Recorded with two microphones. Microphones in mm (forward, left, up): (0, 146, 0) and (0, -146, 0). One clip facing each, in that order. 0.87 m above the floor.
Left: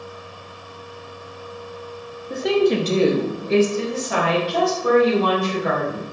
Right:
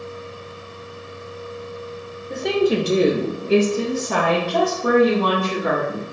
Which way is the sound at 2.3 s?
5° left (ahead or behind).